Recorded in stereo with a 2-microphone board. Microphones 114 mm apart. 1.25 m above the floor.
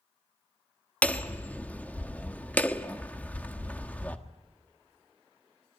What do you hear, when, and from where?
1.0 s hammering: 15° left (ahead or behind), 1.3 m